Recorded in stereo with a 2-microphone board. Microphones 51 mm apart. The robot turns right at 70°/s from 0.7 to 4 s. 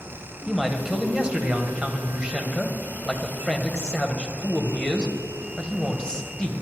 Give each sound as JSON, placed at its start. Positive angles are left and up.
{"t": 0.5, "sound": "a man speaking", "side_deg": -5, "distance_m": 1.0}